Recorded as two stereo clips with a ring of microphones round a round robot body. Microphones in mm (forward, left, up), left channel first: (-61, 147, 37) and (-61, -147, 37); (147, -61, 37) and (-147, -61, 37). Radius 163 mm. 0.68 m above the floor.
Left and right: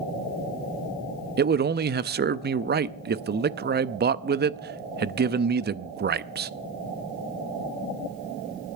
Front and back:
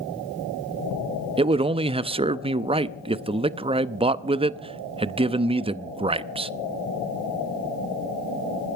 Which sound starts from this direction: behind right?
A man speaking, at 1.4 s.